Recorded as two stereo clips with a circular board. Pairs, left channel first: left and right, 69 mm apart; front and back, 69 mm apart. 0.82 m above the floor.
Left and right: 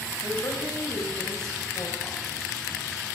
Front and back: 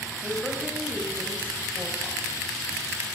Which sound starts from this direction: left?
A woman speaking, at 0.2 s.